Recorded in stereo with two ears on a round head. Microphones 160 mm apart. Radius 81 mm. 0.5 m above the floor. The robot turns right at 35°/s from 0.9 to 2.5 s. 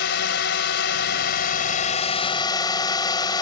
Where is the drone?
95° left; by 3.4 s 155° left.